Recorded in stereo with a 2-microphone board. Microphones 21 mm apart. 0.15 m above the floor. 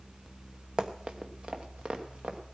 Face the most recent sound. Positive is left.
turn(degrees=-70)  # may be behind; listen again after turning